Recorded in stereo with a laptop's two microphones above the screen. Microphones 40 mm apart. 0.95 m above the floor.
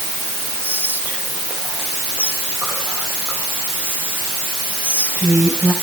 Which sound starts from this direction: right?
Whispering, at 0.6 s.